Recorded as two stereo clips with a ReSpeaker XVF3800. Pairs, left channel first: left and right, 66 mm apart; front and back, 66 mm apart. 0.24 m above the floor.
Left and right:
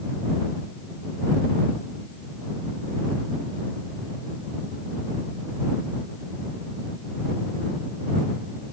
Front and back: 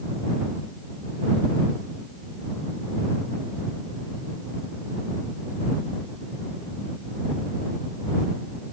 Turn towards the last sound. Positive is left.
No sound to turn to.